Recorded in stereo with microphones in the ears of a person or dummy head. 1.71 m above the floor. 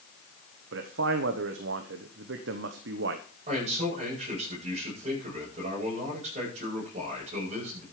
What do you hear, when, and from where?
0.7 s a man speaking: 85° right, 1.1 m
3.5 s a man speaking: 40° right (ahead or behind), 8.5 m